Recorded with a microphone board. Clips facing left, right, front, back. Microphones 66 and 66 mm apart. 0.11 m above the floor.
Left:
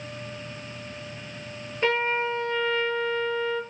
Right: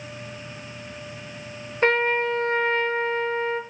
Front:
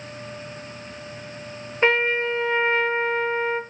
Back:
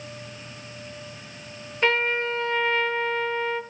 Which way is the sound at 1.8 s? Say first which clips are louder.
Right 4 dB, front 3 dB; 60° right.